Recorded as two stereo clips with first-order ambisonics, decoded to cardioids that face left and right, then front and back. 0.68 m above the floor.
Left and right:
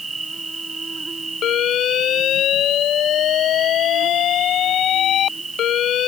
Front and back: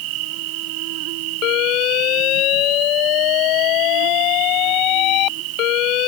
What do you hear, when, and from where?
0.0 s an insect: 170° right
1.4 s an alarm: 40° left